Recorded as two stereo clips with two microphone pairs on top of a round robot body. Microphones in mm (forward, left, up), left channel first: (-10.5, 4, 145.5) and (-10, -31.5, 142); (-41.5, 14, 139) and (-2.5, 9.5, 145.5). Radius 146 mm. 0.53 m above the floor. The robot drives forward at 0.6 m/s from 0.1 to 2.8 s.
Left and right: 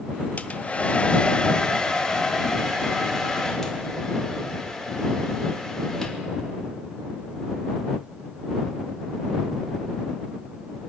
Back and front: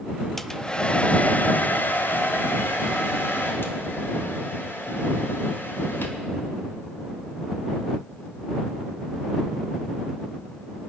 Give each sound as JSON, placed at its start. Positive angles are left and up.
{"t": 0.4, "sound": "a hair dryer", "azimuth_deg": 110, "distance_m": 0.8}